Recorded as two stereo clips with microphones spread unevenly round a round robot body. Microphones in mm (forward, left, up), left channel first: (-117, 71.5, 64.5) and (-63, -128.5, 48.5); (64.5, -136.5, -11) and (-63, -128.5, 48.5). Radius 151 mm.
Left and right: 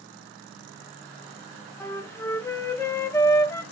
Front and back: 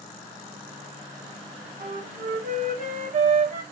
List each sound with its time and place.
1.8 s a flute: straight behind, 1.2 m